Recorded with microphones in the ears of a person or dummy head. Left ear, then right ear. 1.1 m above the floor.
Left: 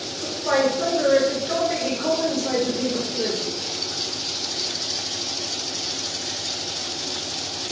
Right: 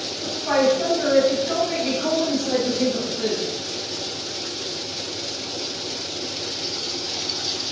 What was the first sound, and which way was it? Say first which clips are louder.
A woman speaking: right 1 dB; 40° left (ahead or behind).